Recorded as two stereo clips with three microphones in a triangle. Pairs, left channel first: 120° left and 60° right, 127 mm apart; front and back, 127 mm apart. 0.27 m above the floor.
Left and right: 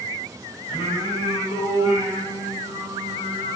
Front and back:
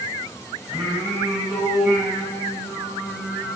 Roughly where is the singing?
Right.